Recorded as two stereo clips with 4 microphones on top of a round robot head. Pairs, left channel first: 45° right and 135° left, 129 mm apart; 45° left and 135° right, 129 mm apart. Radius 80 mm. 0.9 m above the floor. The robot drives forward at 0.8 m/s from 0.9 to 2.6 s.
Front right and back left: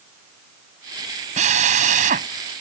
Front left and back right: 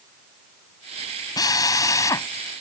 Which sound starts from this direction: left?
A drill, at 1.4 s.